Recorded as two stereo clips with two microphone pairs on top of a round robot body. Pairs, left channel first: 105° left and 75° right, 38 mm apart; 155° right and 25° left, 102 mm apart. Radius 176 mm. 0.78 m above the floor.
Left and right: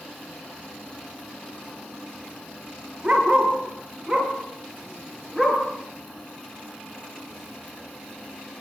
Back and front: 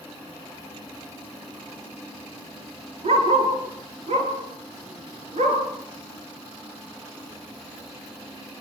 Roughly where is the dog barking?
Ahead.